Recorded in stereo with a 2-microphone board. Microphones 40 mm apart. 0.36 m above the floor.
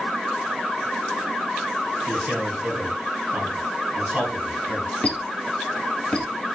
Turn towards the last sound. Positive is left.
turn(degrees=30)  # may be behind; listen again after turning